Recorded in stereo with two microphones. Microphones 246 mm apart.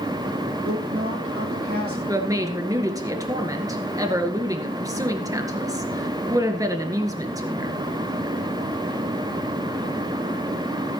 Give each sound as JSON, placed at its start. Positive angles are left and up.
{"t": 0.6, "sound": "a woman speaking", "side_deg": -65, "distance_m": 4.5}
{"t": 2.1, "sound": "a woman speaking", "side_deg": -15, "distance_m": 1.8}